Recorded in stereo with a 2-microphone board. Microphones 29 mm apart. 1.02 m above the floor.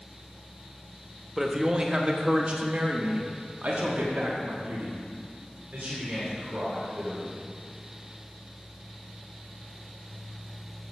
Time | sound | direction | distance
1.4 | a man speaking | 10° right (ahead or behind) | 1.3 m